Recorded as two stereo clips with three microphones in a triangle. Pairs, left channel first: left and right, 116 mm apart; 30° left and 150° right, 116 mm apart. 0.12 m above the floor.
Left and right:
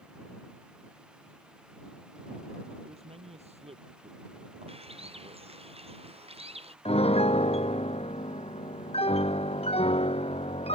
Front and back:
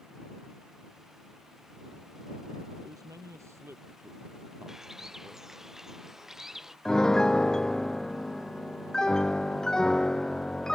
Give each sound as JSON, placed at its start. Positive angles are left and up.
{"t": 2.8, "sound": "a man speaking", "azimuth_deg": -95}
{"t": 4.7, "sound": "a bird", "azimuth_deg": -65}
{"t": 6.8, "sound": "a piano", "azimuth_deg": 115}